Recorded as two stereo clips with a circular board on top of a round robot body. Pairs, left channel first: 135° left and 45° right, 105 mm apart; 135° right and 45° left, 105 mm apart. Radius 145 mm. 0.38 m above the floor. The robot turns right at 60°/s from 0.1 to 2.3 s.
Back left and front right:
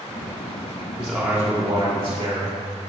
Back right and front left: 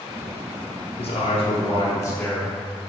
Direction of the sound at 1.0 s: 150° right.